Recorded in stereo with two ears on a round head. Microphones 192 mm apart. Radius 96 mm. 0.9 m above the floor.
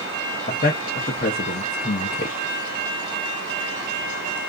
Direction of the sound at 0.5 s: 40° left (ahead or behind).